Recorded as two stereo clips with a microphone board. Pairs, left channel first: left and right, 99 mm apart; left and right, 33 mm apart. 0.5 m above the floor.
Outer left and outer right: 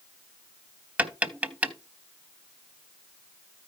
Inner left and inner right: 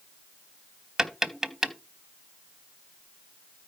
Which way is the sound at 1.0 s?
15° right (ahead or behind).